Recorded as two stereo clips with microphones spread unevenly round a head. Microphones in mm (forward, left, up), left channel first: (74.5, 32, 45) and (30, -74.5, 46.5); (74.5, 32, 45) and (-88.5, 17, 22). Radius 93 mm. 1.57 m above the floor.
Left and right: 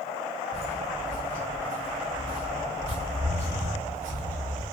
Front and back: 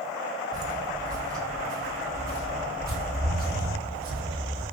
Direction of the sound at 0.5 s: 155° left.